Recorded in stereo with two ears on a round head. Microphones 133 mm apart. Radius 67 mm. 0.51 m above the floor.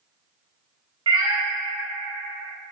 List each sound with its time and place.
1.1 s a cat meowing: 30° right (ahead or behind), 0.5 m